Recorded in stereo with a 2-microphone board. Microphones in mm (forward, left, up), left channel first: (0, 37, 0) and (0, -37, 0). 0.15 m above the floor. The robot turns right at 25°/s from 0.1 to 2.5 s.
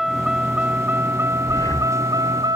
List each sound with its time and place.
0.0 s a vehicle: 175° right; by 2.6 s 115° right
1.5 s breathing: 45° left (ahead or behind); by 1.9 s 55° left (ahead or behind)